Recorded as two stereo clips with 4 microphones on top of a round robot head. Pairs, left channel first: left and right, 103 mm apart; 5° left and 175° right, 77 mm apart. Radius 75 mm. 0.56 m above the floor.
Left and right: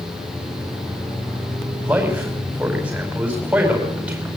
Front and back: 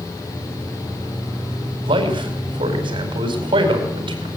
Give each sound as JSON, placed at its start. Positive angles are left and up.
{"t": 1.8, "sound": "a man speaking", "azimuth_deg": -170, "distance_m": 4.5}